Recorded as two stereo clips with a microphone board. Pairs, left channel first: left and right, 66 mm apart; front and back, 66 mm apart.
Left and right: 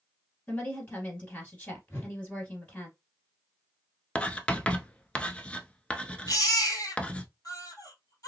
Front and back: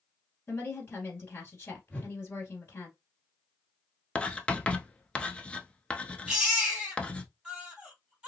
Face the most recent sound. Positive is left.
turn(degrees=105)